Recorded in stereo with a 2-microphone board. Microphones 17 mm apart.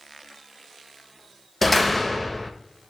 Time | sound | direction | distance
1.6 | a door slam | 5° left (ahead or behind) | 0.6 m